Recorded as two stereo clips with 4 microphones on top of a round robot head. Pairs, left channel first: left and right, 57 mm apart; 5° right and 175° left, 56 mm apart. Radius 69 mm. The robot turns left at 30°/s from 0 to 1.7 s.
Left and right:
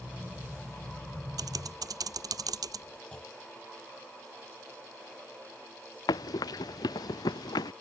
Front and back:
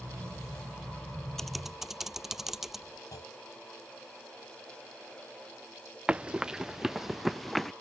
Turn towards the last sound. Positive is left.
turn(degrees=80)